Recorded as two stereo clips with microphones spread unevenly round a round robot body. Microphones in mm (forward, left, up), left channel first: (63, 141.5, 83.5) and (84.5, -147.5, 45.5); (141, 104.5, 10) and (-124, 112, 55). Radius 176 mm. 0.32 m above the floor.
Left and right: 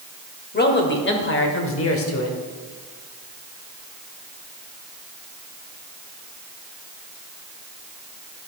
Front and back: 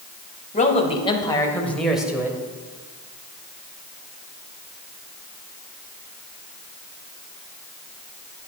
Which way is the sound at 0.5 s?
40° left.